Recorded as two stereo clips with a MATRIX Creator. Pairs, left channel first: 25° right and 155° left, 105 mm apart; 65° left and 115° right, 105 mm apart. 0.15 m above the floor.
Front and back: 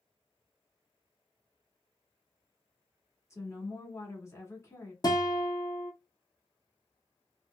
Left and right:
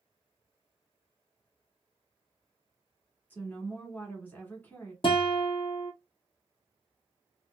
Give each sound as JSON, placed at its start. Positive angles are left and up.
{"t": 3.3, "sound": "a woman speaking", "azimuth_deg": 10, "distance_m": 1.1}
{"t": 5.0, "sound": "a guitar", "azimuth_deg": 30, "distance_m": 0.7}